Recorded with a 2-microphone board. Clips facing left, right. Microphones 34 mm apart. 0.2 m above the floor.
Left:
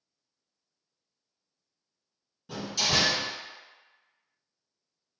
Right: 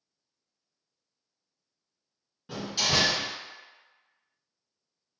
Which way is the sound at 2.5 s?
25° right (ahead or behind).